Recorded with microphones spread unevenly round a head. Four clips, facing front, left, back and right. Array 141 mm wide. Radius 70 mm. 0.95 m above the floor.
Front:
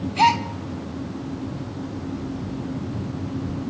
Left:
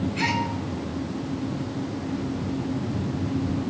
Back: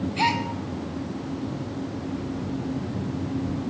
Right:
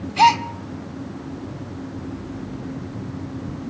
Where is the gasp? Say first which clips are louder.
Right 15 dB, front 7 dB; 65° right, 1.6 m.